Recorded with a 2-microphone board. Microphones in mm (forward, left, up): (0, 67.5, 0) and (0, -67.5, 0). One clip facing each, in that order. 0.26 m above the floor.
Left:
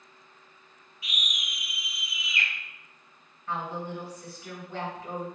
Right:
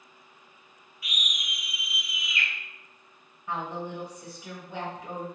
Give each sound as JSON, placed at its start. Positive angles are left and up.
{"t": 1.0, "sound": "a scream", "side_deg": 25, "distance_m": 1.2}
{"t": 3.5, "sound": "a woman speaking", "side_deg": -15, "distance_m": 1.2}